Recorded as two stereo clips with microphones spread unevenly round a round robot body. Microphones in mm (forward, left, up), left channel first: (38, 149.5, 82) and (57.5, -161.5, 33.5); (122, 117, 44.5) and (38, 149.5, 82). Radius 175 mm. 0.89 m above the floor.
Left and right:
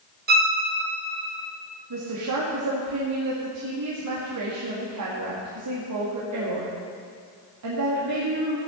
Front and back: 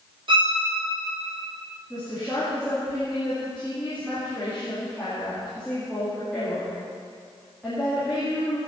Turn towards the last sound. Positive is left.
turn(degrees=-105)